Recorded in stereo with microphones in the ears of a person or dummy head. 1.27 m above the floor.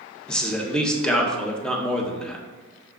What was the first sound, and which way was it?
A man speaking, 5° left (ahead or behind).